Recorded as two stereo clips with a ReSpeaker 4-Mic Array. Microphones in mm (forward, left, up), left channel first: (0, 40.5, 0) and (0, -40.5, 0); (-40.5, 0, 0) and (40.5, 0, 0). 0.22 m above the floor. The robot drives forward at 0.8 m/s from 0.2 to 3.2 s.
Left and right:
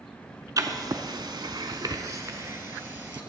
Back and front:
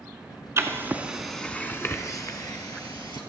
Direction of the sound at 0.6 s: 50° right.